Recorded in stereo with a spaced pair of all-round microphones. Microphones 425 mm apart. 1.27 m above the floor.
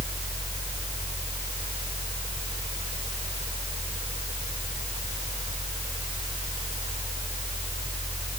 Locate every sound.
0.0 s a fan: 15° right (ahead or behind)